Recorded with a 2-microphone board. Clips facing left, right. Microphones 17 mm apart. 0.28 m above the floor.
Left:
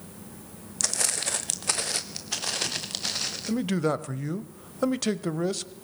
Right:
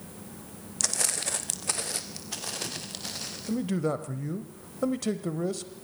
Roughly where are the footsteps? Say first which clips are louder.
Left 1 dB; centre.